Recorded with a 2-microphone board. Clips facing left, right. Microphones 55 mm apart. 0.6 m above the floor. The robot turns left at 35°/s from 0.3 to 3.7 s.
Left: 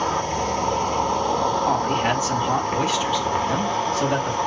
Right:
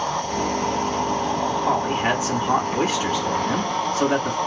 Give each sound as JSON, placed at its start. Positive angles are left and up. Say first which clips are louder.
{"t": 0.0, "sound": "an insect", "louder": "left 1 dB", "azimuth_deg": 115, "distance_m": 1.2}
{"t": 1.6, "sound": "a man speaking", "louder": "even", "azimuth_deg": -10, "distance_m": 1.4}